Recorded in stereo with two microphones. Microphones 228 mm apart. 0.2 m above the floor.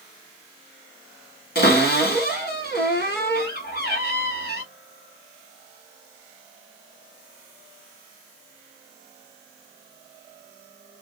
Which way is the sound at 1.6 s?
45° left (ahead or behind).